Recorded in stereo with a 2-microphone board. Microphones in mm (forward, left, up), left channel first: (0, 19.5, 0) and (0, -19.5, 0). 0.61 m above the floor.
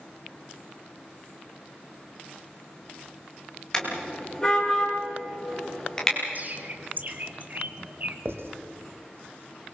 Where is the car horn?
15° left (ahead or behind), 5 m.